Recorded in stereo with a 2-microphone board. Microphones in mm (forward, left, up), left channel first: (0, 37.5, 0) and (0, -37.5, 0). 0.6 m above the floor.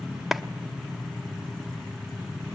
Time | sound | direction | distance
0.3 | a clap | 5° right (ahead or behind) | 0.8 m